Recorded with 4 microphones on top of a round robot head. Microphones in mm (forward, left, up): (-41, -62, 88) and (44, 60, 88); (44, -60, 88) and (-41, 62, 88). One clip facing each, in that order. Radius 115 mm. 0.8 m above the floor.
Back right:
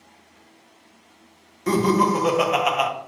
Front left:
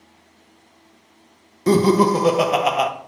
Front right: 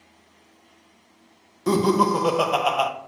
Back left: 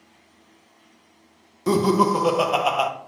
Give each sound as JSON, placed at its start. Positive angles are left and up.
{"t": 1.7, "sound": "laughter", "azimuth_deg": 35, "distance_m": 0.6}